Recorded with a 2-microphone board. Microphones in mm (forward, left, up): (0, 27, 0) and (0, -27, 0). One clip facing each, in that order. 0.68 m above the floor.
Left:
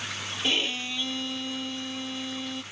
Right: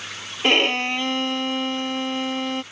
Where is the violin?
55° right (ahead or behind).